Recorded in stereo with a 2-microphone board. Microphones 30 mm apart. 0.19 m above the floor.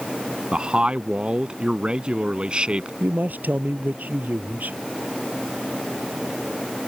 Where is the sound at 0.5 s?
35° right (ahead or behind).